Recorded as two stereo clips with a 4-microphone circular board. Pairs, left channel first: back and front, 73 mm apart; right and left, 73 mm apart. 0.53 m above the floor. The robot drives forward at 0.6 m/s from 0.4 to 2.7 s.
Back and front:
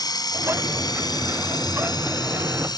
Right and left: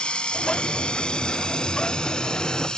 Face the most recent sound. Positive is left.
turn(degrees=-170)